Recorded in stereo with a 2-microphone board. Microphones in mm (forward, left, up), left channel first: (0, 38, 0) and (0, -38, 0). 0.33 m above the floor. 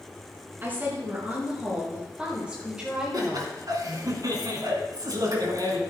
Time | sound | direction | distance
0.6 | a woman speaking | 30° right (ahead or behind) | 4.5 m
3.1 | laughter | 55° right (ahead or behind) | 2.5 m